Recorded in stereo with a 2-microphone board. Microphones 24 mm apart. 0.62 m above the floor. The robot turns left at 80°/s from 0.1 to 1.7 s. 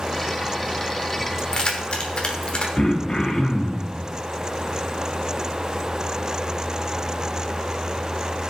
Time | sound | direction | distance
1.4 | keys jangling | 20° left (ahead or behind) | 1.2 m
2.8 | throat clearing | 35° left (ahead or behind) | 1.1 m